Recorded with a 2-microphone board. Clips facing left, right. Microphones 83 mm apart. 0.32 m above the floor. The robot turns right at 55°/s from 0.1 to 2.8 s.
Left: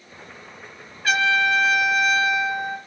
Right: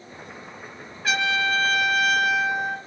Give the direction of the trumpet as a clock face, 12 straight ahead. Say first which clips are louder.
Left 4 dB; 6 o'clock.